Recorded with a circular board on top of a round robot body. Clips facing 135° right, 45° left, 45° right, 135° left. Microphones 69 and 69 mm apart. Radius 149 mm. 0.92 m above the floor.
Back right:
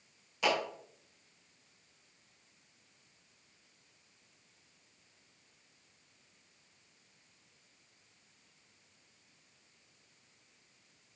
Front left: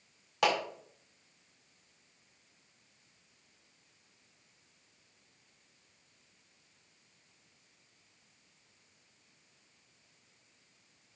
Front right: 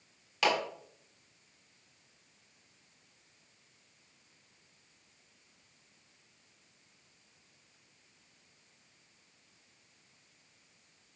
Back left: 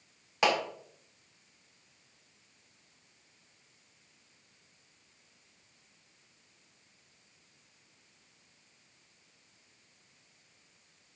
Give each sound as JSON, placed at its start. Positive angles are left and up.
{"t": 0.4, "sound": "a clap", "azimuth_deg": 70, "distance_m": 4.5}